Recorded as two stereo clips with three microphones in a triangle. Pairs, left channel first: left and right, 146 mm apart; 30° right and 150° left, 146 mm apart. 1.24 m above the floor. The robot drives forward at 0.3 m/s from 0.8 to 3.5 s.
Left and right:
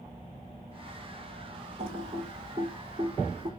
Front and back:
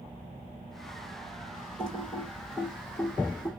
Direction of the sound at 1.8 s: 115° right.